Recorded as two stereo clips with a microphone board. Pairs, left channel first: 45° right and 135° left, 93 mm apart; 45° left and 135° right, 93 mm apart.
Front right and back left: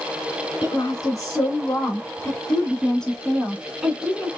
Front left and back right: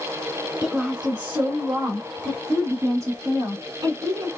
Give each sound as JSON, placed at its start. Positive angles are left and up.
{"t": 0.6, "sound": "a woman speaking", "azimuth_deg": -55, "distance_m": 2.0}